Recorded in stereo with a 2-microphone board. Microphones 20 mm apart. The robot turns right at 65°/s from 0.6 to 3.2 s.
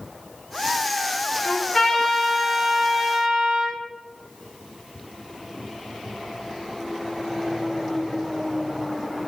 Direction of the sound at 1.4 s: 140° left.